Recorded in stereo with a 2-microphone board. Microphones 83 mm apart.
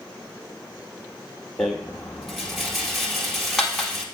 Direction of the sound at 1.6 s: Centre (ahead or behind).